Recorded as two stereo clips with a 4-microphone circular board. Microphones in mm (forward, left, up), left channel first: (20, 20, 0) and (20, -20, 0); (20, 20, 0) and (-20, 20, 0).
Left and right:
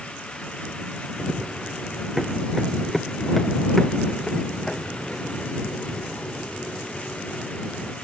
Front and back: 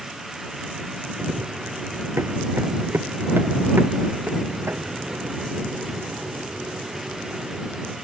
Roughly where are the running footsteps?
Behind.